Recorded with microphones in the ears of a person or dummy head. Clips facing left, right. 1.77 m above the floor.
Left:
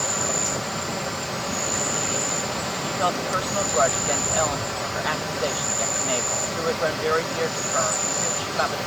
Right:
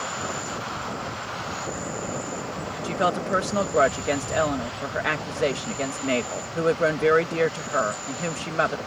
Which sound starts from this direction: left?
An insect, at 0.0 s.